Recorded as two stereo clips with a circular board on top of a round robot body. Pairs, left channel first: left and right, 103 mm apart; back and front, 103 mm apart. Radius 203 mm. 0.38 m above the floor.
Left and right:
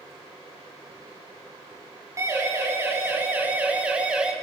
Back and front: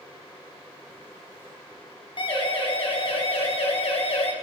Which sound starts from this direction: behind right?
A siren, at 2.2 s.